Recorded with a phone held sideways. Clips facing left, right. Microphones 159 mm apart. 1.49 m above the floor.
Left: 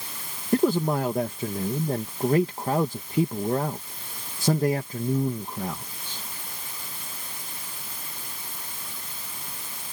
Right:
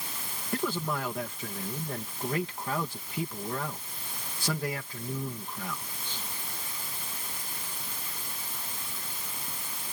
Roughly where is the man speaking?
Left.